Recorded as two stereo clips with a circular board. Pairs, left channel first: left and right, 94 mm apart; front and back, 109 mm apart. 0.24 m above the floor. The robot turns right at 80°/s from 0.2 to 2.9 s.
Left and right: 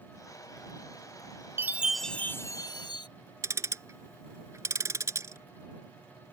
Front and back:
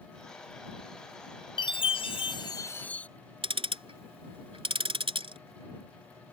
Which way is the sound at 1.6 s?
30° right.